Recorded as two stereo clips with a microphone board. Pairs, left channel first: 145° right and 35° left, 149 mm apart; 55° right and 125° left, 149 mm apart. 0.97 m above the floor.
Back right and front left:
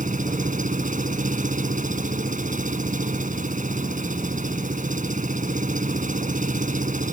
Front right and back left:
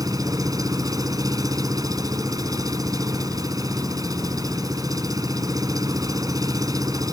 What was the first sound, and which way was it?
An engine running, 60° left.